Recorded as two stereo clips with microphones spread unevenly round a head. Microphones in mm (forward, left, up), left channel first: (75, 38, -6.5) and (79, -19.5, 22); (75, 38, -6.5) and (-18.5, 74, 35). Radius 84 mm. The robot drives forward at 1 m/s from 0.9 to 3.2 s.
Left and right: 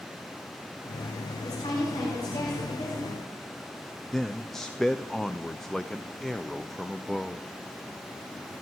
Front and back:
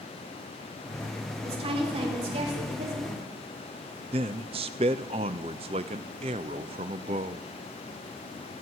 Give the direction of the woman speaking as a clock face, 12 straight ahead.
8 o'clock.